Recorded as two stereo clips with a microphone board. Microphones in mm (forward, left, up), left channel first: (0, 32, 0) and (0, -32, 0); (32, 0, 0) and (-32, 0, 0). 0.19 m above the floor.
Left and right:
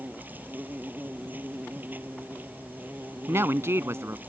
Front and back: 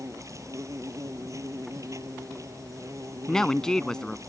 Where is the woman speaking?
75° right.